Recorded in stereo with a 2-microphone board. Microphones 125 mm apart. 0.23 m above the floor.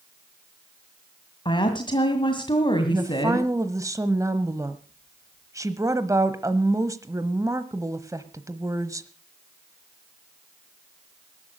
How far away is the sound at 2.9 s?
About 1.0 m.